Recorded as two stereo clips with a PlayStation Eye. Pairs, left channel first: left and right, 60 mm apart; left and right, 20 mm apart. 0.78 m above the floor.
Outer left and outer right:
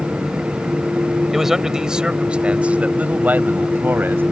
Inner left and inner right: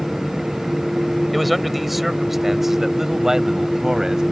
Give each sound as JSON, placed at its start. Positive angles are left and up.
{"t": 1.3, "sound": "a man speaking", "side_deg": -5}